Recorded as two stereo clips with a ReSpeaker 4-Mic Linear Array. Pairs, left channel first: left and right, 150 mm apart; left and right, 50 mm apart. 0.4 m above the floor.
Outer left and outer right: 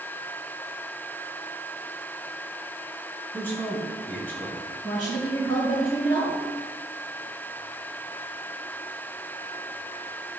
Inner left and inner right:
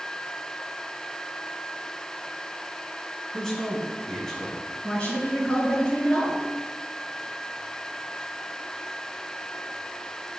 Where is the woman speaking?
25° left (ahead or behind), 4.5 m.